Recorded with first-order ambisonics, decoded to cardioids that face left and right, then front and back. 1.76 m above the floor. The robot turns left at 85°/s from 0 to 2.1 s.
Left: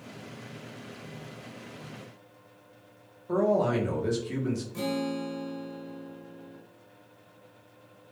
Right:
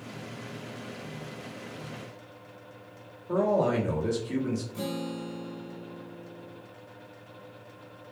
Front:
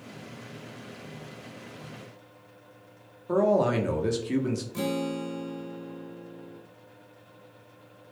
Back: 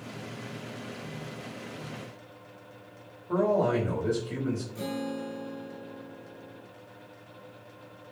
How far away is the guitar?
About 0.5 m.